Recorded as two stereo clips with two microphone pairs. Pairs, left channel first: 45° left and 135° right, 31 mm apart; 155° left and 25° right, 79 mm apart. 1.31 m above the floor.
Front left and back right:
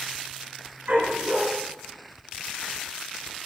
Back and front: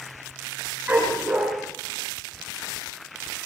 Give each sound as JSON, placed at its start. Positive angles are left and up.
{"t": 0.9, "sound": "a dog barking", "azimuth_deg": -100, "distance_m": 6.0}